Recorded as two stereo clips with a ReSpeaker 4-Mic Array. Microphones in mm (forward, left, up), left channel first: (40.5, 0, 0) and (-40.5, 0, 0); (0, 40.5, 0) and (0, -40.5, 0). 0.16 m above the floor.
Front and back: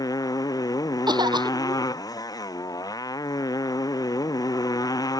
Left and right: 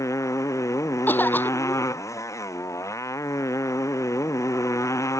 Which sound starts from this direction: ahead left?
A motorcycle, at 0.0 s.